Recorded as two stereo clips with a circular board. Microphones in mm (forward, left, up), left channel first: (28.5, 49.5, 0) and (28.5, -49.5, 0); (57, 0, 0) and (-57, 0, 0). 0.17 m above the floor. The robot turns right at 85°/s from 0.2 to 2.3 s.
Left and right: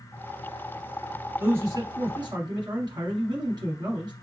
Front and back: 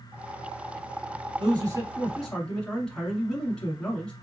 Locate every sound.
1.4 s a man speaking: 160° right, 1.5 m; by 4.1 s 80° right, 1.5 m